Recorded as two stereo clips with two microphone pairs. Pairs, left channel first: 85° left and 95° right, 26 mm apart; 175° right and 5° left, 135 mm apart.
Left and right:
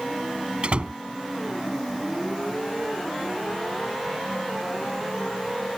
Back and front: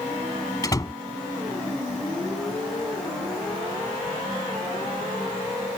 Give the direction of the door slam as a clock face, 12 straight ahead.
4 o'clock.